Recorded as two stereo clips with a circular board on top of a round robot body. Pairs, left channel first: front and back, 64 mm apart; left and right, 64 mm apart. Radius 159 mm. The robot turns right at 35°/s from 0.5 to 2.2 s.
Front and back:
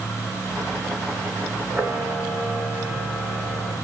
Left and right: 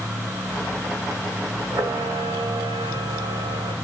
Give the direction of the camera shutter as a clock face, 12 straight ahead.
4 o'clock.